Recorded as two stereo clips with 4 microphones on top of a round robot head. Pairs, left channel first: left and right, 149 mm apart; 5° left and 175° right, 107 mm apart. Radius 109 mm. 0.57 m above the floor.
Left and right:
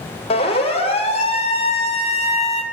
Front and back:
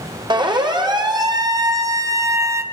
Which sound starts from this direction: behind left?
A siren, at 0.3 s.